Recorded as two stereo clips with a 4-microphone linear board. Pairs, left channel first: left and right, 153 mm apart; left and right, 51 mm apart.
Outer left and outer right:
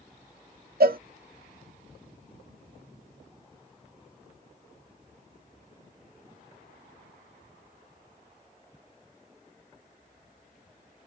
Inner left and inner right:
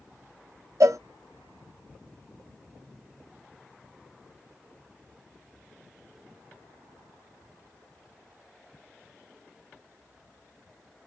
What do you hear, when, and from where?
0.8 s a cowbell: 70° right (ahead or behind), 0.6 m